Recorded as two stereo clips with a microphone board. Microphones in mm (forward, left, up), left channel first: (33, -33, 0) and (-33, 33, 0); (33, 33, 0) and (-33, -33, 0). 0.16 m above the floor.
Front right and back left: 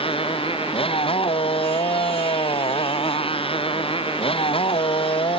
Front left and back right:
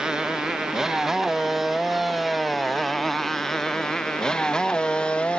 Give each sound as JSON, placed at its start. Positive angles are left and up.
{"t": 0.0, "sound": "a motorcycle", "azimuth_deg": -50}